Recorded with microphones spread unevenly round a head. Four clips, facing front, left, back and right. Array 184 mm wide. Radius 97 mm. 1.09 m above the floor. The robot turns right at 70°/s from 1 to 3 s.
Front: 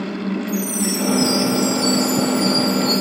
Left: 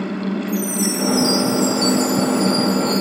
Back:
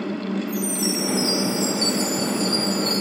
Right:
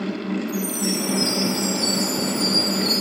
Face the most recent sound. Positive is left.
turn(degrees=-125)